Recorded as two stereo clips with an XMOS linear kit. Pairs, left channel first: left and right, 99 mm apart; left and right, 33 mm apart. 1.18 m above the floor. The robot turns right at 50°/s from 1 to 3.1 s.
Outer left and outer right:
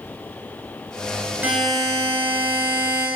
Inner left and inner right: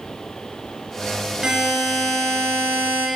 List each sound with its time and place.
1.4 s a buzzer: 15° right, 8.5 m; by 3.1 s 65° left, 8.5 m